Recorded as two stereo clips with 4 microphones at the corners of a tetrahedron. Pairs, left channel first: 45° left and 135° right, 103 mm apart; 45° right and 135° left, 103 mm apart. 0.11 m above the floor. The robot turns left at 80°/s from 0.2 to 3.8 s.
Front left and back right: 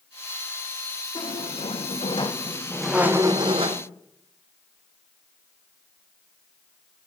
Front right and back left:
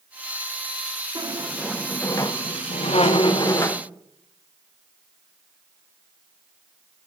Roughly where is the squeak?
Left.